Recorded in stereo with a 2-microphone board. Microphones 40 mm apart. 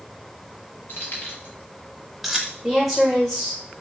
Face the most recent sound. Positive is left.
turn(degrees=0)  # may be behind; listen again after turning